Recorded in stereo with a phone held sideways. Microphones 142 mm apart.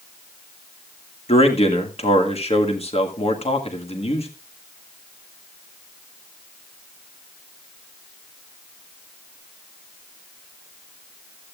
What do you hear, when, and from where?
1.3 s a man speaking: 45° left (ahead or behind), 1.7 m